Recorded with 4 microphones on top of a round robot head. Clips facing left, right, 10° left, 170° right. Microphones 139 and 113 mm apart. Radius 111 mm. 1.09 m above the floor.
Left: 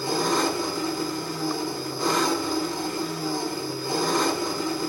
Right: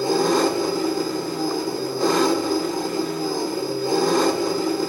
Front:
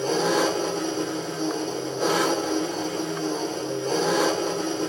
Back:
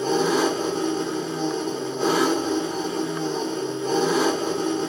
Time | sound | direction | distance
0.0 | an engine running | 105° right | 1.4 m